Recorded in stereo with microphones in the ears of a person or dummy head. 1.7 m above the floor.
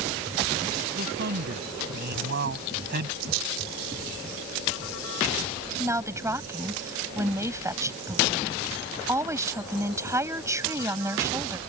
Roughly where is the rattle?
Right.